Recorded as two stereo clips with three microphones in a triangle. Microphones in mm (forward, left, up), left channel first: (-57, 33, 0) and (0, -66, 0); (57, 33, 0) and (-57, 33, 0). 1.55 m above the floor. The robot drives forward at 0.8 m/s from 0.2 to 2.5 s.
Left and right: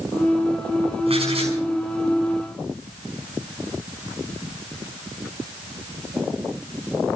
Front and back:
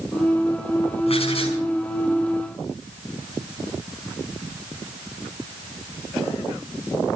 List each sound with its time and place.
1.1 s writing: 30° right, 5.5 m